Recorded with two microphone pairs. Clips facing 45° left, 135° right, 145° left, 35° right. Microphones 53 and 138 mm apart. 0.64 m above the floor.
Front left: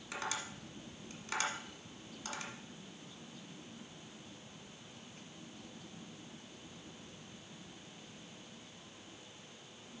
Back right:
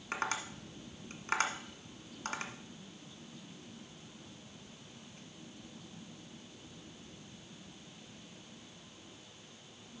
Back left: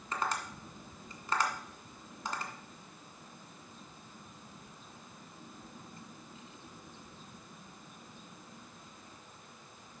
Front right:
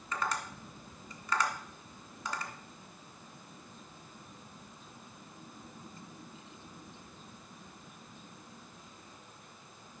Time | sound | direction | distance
0.1 | tapping | 160° right | 1.3 m